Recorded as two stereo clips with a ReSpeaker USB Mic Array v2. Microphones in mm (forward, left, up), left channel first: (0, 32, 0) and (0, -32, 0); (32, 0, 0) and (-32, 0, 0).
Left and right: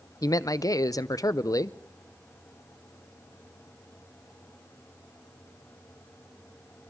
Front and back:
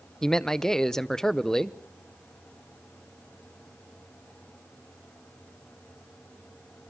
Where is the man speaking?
80° left, 0.6 m.